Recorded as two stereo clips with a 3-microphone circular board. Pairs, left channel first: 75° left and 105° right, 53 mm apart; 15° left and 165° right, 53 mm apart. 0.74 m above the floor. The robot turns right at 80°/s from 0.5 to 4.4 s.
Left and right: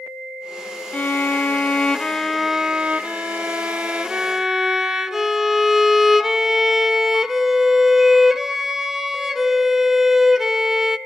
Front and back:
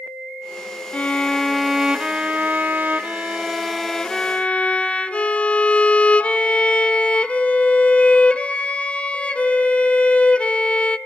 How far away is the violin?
About 0.8 m.